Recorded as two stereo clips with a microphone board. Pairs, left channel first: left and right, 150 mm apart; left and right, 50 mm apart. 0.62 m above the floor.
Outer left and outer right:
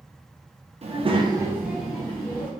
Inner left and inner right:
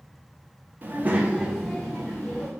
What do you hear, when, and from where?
0.8 s a child speaking: 45° right (ahead or behind), 0.7 m; by 2.5 s 15° left (ahead or behind), 1.0 m